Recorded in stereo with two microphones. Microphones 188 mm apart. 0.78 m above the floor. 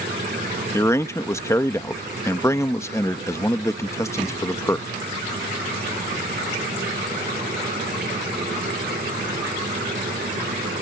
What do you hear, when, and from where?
0.7 s a man speaking: 15° left (ahead or behind)